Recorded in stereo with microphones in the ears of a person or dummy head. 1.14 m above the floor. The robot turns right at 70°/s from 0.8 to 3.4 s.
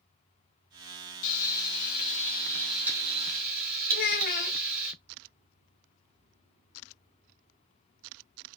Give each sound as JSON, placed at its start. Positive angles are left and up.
{"t": 1.2, "sound": "frying", "azimuth_deg": 80, "distance_m": 1.4}
{"t": 3.9, "sound": "a child speaking", "side_deg": 55, "distance_m": 0.7}